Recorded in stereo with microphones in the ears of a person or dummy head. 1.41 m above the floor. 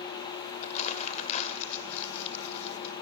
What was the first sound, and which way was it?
Crumpling, 45° left (ahead or behind).